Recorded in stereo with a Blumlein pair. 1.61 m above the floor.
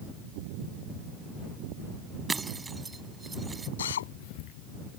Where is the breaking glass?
15° right.